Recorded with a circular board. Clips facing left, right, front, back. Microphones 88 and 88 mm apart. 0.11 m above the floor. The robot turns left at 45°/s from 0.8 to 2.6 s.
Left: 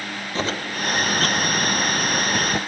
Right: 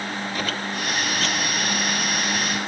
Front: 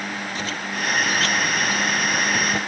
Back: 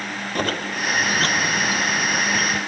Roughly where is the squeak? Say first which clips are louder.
Left 6 dB, back 7 dB; behind left.